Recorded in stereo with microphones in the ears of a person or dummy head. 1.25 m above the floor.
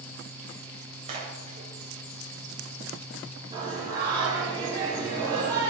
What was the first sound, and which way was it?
A splash, 40° right (ahead or behind).